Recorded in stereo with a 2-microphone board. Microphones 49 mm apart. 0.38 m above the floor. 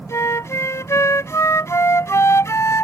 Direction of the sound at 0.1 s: 75° left (ahead or behind).